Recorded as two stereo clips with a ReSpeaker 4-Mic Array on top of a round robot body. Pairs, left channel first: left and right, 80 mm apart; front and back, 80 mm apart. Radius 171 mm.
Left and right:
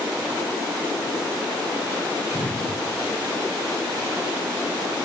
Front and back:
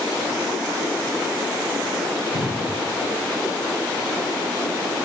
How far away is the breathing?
About 3 m.